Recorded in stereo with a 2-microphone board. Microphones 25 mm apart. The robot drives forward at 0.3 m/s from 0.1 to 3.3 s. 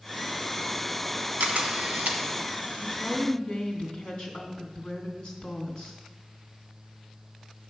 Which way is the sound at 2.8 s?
35° left (ahead or behind).